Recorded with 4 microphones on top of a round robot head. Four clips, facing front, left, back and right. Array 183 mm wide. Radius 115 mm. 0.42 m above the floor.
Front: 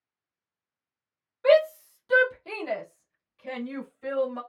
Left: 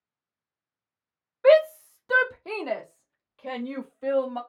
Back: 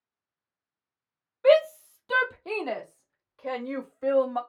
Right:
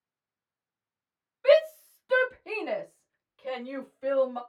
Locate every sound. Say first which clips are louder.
1.4 s a shout: left 3 dB, even; 100° left, 1.5 m; by 4.4 s 160° left, 2 m